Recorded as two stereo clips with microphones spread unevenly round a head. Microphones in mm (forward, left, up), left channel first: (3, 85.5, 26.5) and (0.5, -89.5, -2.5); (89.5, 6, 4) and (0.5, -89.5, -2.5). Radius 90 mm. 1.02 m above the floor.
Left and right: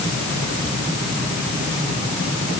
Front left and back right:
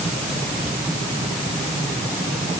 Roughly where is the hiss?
No hiss in this recording.